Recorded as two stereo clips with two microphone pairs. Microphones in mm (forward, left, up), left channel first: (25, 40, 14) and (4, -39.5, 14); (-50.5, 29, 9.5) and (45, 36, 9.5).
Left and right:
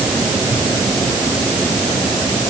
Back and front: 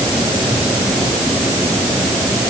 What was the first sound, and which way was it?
Only background noise.